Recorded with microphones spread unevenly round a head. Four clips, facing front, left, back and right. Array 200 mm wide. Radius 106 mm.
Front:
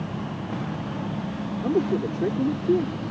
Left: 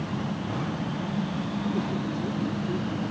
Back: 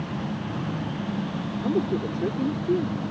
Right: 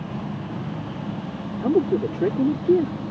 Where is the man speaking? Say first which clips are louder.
Right 12 dB, front 2 dB; 80° right.